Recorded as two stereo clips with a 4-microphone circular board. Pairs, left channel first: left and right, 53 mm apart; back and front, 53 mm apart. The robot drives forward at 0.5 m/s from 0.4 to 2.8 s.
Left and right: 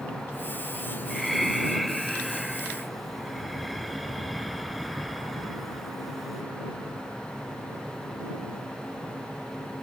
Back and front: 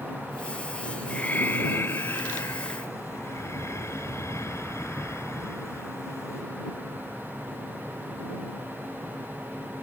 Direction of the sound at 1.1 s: 175° left.